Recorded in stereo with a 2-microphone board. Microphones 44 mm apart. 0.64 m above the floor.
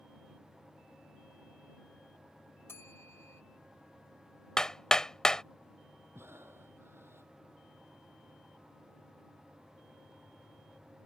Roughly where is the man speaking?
I don't hear a man speaking.